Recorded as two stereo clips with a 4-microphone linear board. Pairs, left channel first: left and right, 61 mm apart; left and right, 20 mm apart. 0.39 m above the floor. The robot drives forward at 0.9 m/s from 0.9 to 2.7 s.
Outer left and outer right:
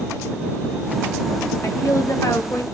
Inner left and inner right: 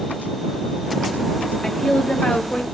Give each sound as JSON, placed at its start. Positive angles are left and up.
{"t": 1.6, "sound": "a woman speaking", "side_deg": 55, "distance_m": 2.0}